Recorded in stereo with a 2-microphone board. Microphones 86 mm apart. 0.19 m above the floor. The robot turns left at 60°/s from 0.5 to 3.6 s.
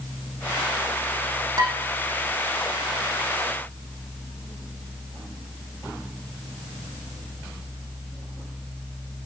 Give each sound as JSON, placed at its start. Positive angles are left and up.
{"t": 1.6, "sound": "dishes clattering", "side_deg": -45, "distance_m": 6.0}